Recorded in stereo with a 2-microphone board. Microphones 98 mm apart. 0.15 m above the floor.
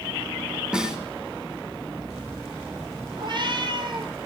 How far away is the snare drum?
About 1.5 m.